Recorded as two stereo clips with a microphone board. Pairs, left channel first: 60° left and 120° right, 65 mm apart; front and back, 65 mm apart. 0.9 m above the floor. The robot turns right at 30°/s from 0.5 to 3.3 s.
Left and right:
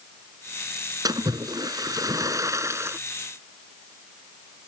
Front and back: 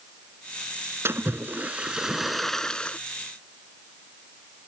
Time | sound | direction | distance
1.1 | a splash | 130° right | ?